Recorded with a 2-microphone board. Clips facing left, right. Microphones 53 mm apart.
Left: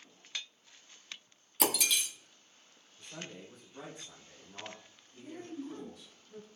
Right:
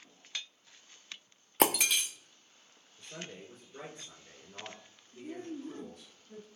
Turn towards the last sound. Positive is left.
turn(degrees=-50)  # may be behind; listen again after turning